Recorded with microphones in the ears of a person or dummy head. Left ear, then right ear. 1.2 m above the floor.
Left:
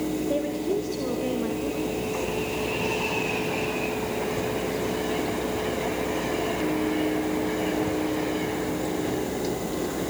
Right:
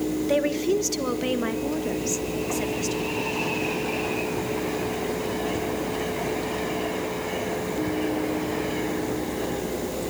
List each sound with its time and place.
0.3 s a woman speaking: 60° right (ahead or behind), 1.4 m